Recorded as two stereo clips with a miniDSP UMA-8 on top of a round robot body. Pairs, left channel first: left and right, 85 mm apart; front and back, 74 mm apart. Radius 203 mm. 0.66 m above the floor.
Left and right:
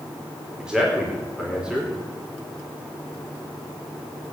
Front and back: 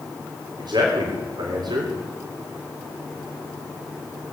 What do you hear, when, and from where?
0.6 s a man speaking: 170° right, 3.5 m